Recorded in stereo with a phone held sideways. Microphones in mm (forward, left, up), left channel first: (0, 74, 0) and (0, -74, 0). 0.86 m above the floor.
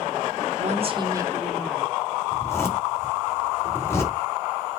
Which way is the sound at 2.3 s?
20° left (ahead or behind).